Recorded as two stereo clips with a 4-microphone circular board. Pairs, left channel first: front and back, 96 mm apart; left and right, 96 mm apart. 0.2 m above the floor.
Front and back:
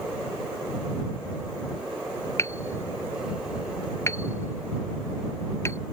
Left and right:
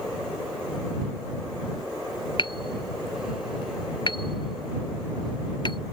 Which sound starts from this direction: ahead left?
Hammering, at 2.4 s.